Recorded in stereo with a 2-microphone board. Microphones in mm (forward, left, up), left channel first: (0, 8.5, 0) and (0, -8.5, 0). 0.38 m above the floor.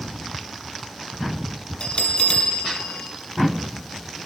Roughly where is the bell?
Left.